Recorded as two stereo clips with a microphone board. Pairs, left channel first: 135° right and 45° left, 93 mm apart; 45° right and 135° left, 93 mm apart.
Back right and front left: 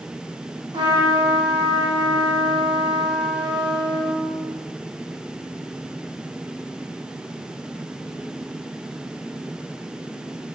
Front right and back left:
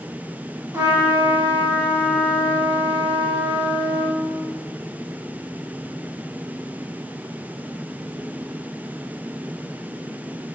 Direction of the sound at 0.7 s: 80° left.